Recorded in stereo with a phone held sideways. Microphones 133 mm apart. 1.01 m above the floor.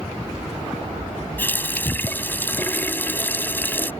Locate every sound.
1.4 s a running tap: 15° left (ahead or behind)